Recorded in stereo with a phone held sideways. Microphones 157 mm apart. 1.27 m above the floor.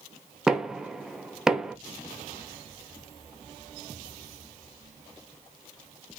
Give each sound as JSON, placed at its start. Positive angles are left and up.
{"t": 0.5, "sound": "knocking", "side_deg": -5, "distance_m": 0.6}